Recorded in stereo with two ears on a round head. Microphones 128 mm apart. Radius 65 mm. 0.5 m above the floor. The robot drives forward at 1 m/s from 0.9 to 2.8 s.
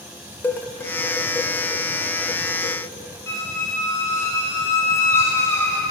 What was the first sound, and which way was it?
Dishes clattering, 15° left (ahead or behind).